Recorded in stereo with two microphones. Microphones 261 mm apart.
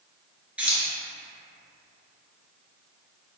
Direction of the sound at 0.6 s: 5° right (ahead or behind).